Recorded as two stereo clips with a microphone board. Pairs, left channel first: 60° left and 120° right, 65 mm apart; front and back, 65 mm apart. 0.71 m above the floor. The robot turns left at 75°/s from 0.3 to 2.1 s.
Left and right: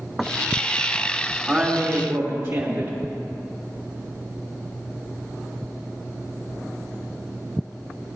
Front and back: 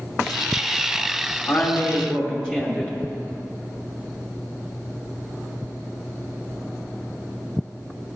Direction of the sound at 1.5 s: 45° right.